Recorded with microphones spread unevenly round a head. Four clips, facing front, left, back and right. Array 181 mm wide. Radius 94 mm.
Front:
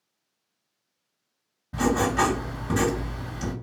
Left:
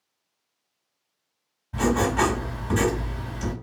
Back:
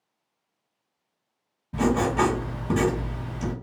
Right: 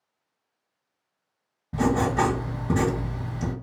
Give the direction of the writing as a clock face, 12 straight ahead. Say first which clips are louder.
Even, back 1 dB; 3 o'clock.